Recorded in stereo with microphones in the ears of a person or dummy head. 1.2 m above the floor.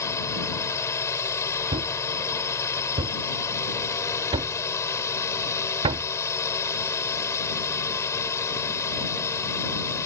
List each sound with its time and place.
0.0 s a drone: 15° left (ahead or behind)
1.7 s a thud: 30° right (ahead or behind)